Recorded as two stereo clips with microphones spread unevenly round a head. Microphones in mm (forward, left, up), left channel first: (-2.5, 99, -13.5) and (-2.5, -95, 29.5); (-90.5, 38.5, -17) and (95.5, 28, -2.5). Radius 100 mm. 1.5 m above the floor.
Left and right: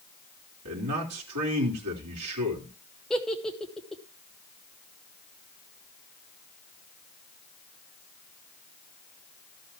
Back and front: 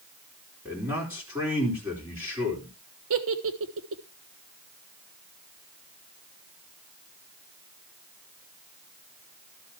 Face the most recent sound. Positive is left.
turn(degrees=0)